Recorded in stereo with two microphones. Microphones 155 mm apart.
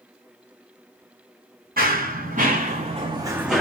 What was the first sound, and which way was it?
Running footsteps, 70° right (ahead or behind).